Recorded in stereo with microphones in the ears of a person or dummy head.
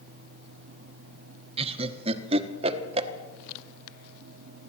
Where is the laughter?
30° right (ahead or behind), 1.3 m.